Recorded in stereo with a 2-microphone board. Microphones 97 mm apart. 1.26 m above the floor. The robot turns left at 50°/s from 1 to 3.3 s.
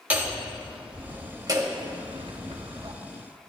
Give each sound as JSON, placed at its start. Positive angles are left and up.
{"t": 0.1, "sound": "hammering", "azimuth_deg": -20, "distance_m": 2.5}